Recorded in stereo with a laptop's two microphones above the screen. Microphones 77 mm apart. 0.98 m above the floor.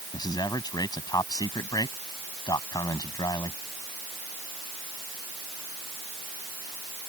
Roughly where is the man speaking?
Left.